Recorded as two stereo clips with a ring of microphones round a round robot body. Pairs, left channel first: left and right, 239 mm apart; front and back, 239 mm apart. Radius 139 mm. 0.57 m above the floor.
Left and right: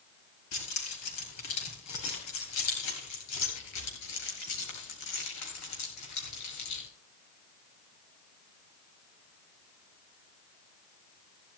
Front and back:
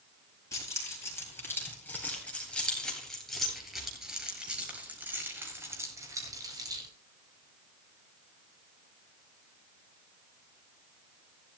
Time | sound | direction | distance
0.5 | keys jangling | 75° left | 9.5 m